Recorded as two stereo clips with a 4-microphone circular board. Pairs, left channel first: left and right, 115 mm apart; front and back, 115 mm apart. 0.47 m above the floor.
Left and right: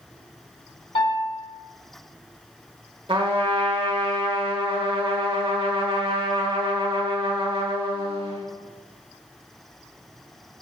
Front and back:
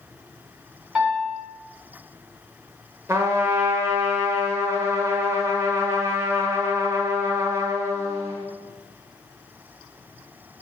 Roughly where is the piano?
Left.